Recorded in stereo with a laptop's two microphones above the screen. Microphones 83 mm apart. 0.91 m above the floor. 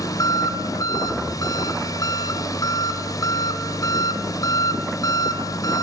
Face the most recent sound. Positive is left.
turn(degrees=45)  # may be behind; listen again after turning